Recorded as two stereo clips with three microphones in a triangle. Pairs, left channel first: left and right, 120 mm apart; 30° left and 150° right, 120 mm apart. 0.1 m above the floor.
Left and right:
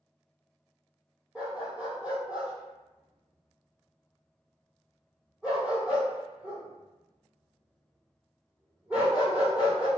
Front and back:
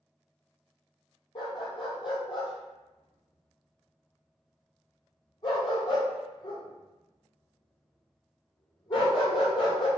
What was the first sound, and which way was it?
A dog barking, 10° right.